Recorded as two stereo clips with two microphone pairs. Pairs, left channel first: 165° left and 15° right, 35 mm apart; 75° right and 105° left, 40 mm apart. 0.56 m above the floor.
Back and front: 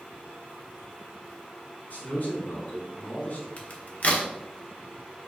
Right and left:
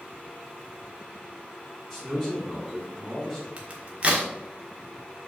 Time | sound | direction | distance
1.9 | a man speaking | 175° right | 3.5 m
3.6 | a crack | 145° left | 1.4 m